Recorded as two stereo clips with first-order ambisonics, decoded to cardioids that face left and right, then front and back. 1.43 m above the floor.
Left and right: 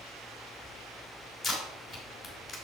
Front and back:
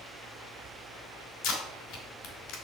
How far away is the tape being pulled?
About 2.5 m.